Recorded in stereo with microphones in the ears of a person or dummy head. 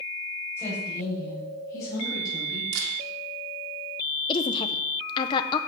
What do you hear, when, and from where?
0.6 s a woman speaking: 15° left (ahead or behind), 7 m; by 2.6 s 25° left (ahead or behind), 8 m
2.7 s a camera shutter: 75° right (ahead or behind), 2.5 m
4.3 s a woman speaking: 30° left (ahead or behind), 0.8 m